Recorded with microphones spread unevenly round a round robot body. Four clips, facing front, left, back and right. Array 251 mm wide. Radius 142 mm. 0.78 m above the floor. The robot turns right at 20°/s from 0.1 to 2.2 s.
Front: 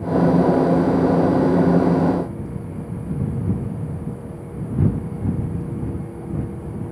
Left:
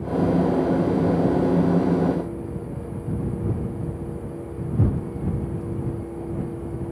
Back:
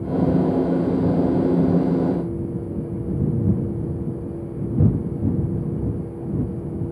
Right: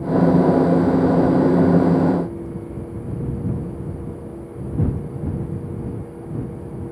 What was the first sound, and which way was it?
Only background noise.